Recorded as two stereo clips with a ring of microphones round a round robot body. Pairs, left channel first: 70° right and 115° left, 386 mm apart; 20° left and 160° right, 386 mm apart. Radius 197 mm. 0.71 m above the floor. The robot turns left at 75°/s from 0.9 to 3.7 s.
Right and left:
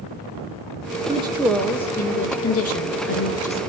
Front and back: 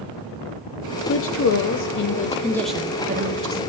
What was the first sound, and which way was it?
A woman speaking, 50° left.